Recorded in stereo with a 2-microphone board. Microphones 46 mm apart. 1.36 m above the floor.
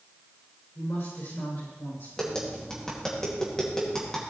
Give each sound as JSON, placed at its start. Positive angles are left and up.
{"t": 0.8, "sound": "a woman speaking", "side_deg": 75, "distance_m": 5.0}
{"t": 2.2, "sound": "tapping", "side_deg": 15, "distance_m": 2.5}